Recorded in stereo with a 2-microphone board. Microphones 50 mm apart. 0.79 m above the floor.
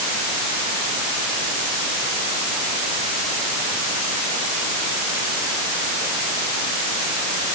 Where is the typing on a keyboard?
I don't hear typing on a keyboard.